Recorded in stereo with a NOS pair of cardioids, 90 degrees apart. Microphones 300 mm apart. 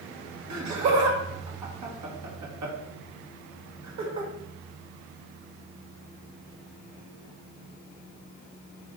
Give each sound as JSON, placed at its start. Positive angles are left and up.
{"t": 0.5, "sound": "laughter", "azimuth_deg": -60, "distance_m": 1.6}